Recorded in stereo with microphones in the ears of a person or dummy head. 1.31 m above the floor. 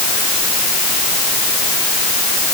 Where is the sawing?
I don't hear sawing.